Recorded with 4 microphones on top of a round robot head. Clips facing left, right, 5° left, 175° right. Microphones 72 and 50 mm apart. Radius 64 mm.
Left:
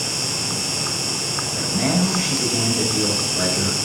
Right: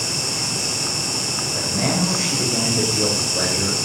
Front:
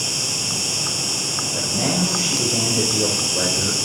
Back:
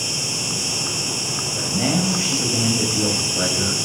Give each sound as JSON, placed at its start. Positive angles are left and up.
{"t": 0.0, "sound": "an insect", "azimuth_deg": -20, "distance_m": 6.5}
{"t": 1.5, "sound": "a man speaking", "azimuth_deg": -25, "distance_m": 4.5}